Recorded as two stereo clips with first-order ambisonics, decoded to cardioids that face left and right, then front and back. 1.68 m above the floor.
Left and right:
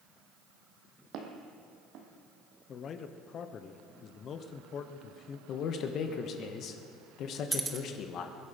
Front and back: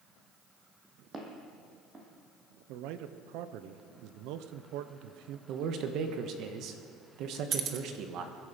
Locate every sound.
1.1 s footsteps: 115° right, 2.5 m
2.7 s a man speaking: 150° left, 0.9 m
5.5 s a man speaking: 140° left, 1.4 m
7.5 s keys jangling: 160° right, 0.9 m